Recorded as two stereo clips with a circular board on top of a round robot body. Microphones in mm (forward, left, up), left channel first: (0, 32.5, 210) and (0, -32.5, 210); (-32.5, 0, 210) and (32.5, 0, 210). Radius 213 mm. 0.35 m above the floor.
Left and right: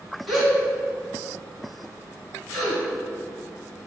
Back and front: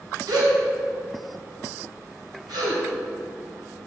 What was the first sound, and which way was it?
A gasp, straight ahead.